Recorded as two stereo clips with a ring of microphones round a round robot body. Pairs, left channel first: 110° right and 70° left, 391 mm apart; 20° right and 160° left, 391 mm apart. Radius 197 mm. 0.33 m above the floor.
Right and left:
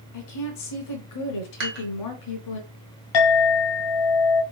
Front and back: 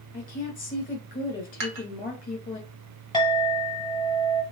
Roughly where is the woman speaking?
Right.